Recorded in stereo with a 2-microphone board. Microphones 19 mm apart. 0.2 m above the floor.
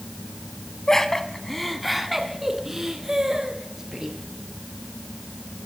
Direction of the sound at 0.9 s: 30° left (ahead or behind).